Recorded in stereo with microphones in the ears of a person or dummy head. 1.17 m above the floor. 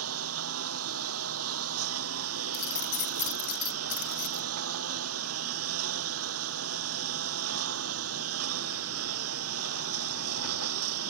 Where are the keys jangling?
45° left (ahead or behind).